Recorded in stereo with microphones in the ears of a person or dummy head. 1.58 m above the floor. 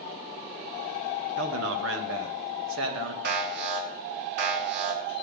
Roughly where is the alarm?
Right.